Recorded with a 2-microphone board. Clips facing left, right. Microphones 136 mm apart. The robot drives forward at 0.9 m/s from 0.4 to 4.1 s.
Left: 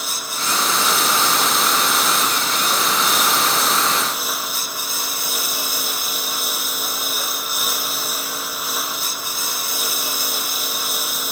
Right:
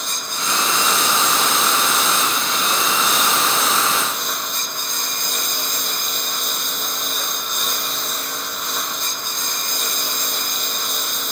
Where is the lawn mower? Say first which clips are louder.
Even; 5° left (ahead or behind).